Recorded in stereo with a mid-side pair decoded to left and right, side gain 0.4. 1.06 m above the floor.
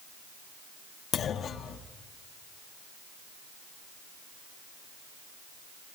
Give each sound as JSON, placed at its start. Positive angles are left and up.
{"t": 1.1, "sound": "a clunk", "azimuth_deg": 65, "distance_m": 1.5}